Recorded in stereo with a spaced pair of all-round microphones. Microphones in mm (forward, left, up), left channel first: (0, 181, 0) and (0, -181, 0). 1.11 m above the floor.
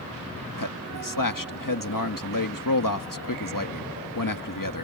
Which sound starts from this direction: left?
A man speaking, at 0.6 s.